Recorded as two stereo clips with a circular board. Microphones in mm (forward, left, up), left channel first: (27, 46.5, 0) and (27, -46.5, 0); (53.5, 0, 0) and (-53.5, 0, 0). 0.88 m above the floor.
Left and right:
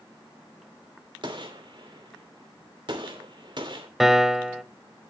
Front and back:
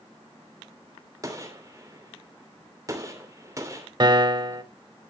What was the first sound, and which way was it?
A gunshot, 120° right.